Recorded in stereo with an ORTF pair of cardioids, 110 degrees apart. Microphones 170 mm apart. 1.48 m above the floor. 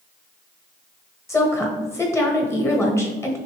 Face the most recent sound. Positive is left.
turn(degrees=15)